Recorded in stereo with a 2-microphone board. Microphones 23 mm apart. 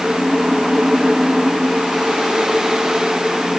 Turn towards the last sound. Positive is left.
No sound to turn to.